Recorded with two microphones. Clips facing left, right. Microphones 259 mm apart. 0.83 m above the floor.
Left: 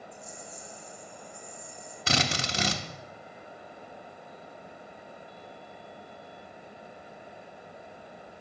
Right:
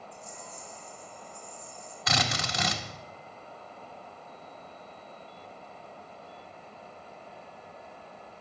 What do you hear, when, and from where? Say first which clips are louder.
0.1 s a rattle: left 1 dB; 30° right (ahead or behind), 4 m
2.1 s a drill: left 2 dB; 30° left (ahead or behind), 1.3 m